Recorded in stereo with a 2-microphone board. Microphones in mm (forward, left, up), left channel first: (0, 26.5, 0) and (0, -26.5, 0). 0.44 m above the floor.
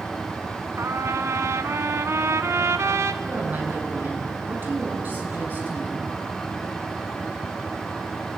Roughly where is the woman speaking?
Right.